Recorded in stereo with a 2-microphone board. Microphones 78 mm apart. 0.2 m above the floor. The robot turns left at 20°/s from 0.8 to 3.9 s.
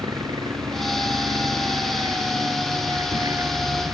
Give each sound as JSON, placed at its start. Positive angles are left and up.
{"t": 0.0, "sound": "a helicopter", "azimuth_deg": -75}